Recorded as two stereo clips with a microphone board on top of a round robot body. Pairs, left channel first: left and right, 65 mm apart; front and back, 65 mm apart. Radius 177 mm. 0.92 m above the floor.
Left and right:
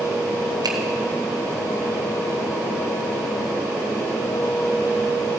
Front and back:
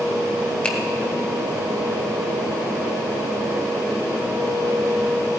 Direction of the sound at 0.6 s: 75° right.